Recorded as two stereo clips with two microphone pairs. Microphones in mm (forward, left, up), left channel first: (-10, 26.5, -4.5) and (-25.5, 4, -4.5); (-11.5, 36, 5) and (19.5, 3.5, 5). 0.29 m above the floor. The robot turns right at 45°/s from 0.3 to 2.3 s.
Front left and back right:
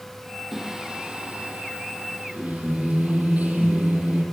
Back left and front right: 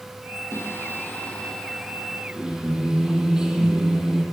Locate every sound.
0.5 s singing: 160° left, 5.5 m; by 4.2 s 120° right, 5.5 m